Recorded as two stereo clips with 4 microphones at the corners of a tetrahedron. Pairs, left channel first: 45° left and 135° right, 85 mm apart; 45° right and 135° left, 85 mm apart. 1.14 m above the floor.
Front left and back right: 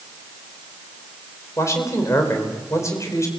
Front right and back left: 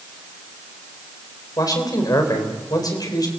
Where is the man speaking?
5° right, 4 m.